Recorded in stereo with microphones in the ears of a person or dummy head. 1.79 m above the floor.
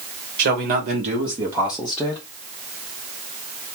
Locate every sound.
0.4 s a man speaking: 50° right (ahead or behind), 1.2 m; by 2.2 s 20° left (ahead or behind), 0.8 m